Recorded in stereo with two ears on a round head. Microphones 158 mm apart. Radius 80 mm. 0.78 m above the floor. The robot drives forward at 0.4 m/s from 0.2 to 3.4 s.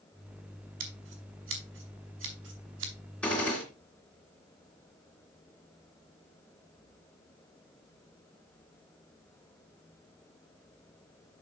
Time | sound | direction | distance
0.8 | scissors | 75° right (ahead or behind) | 4.5 m
3.2 | a gunshot | 5° left (ahead or behind) | 3 m